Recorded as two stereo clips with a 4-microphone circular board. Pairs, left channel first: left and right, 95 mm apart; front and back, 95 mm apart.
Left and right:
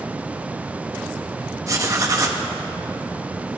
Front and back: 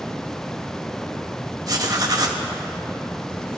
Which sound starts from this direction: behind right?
Writing, at 1.7 s.